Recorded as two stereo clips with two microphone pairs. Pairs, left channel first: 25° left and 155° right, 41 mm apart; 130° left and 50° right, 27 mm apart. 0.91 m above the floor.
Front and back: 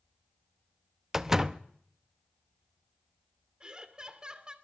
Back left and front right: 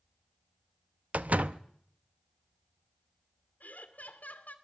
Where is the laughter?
140° left, 2.5 m.